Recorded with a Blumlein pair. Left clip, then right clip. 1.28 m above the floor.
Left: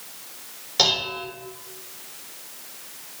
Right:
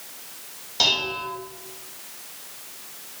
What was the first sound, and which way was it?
Dishes clattering, 45° left.